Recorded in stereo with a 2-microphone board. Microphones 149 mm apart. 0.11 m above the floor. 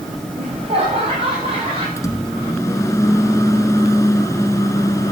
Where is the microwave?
20° left (ahead or behind), 0.9 m.